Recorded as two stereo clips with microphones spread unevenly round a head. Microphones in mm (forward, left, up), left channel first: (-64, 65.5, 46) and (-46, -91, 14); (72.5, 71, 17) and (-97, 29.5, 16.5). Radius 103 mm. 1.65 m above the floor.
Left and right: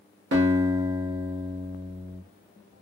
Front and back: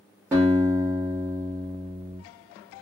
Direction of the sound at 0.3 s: 85° right.